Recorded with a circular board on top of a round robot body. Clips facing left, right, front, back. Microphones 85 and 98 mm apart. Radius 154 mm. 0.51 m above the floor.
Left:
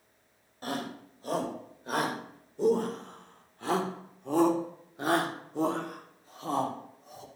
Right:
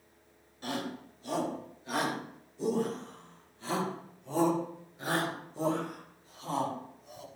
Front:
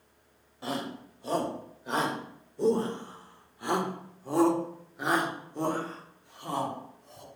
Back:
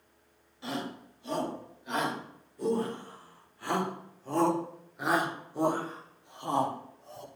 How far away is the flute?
No flute in this recording.